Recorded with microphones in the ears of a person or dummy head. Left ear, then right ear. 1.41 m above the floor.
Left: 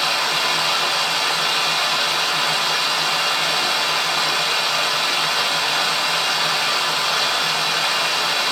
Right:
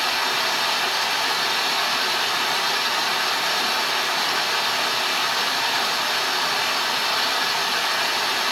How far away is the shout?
I don't hear a shout.